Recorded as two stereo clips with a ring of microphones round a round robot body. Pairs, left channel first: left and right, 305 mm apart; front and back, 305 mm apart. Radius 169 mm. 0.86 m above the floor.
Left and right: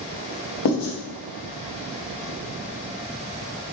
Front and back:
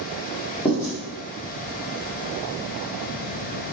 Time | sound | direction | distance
0.7 | writing | 85° left | 1.1 m